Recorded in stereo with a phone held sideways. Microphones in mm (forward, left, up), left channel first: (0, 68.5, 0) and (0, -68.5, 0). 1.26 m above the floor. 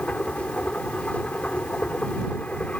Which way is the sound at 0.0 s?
10° left (ahead or behind).